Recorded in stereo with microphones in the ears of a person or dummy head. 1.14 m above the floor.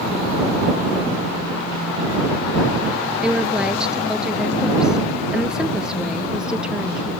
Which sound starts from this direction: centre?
A woman speaking, at 3.2 s.